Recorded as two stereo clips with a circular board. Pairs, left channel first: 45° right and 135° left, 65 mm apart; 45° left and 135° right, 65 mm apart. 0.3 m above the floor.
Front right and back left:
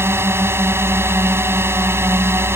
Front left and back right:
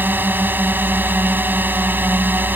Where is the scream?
No scream in this recording.